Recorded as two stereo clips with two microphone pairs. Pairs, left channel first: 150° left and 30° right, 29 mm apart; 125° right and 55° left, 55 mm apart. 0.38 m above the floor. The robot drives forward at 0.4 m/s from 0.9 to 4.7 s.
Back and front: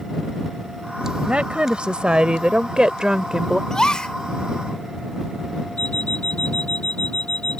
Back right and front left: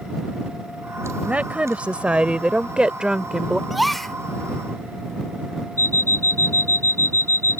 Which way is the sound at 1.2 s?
5° right.